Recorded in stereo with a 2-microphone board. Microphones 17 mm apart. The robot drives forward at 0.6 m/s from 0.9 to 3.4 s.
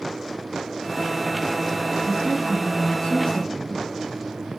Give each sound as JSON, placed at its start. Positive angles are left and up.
{"t": 2.0, "sound": "a woman speaking", "side_deg": 80, "distance_m": 4.5}